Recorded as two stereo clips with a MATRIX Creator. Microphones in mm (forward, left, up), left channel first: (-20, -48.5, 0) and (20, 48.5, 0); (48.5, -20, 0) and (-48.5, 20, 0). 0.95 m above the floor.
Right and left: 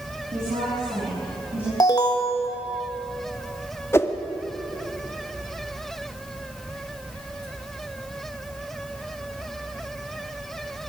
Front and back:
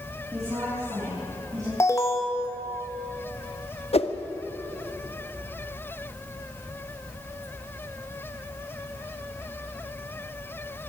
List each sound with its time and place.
0.3 s a woman speaking: 100° left, 6.5 m
1.8 s an alarm: 75° right, 2 m
3.9 s a whoosh: 45° right, 1.2 m